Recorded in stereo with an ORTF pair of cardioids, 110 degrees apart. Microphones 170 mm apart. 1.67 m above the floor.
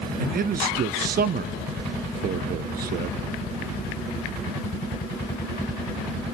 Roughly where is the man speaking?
Ahead right.